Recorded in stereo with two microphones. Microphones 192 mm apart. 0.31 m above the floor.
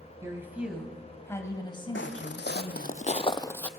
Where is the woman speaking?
15° right (ahead or behind), 2.5 m; by 3.0 s 50° left (ahead or behind), 2.5 m.